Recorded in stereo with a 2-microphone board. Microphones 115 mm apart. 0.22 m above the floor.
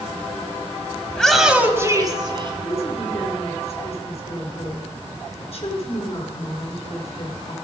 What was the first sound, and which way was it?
A shout, 10° left (ahead or behind).